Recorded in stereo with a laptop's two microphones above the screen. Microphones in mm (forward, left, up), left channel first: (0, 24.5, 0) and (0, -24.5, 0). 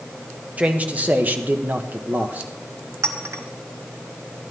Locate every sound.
0.6 s a man speaking: 30° right (ahead or behind), 1.1 m; by 2.5 s 35° right (ahead or behind), 1.0 m
3.0 s a clink: 75° right (ahead or behind), 1.0 m